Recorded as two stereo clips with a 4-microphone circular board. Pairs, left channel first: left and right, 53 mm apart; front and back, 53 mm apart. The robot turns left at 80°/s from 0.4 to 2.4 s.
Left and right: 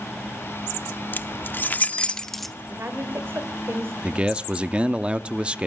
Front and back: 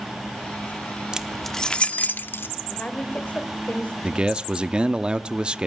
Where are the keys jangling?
110° left, 0.8 m; by 2.5 s 10° left, 0.8 m.